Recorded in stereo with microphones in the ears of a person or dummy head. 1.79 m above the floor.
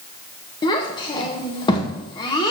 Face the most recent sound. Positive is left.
turn(degrees=25)  # may be behind; listen again after turning